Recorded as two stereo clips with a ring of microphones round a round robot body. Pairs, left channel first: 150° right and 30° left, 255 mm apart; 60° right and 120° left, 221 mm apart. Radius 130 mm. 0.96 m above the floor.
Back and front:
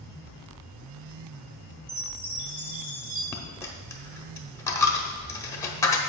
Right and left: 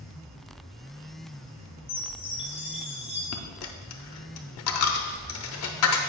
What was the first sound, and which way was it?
A chime, 5° left.